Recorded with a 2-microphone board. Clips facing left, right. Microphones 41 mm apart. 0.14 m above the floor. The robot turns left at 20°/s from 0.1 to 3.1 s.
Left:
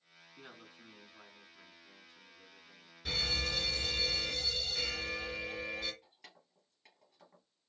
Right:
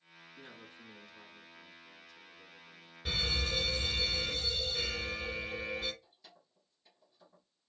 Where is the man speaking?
15° left (ahead or behind), 1.3 m; by 3.0 s 20° left (ahead or behind), 1.3 m.